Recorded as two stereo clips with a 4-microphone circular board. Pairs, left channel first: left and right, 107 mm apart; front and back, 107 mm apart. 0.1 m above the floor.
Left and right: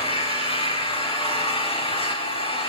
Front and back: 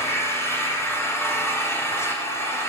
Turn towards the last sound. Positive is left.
turn(degrees=65)